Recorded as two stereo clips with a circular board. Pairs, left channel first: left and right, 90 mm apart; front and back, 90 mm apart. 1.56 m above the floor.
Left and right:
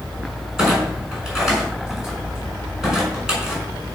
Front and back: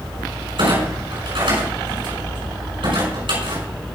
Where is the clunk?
175° right, 6 m.